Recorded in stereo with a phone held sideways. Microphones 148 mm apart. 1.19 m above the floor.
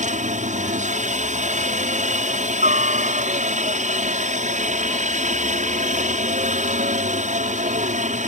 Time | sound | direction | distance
0.0 | a helicopter | 60° right (ahead or behind) | ?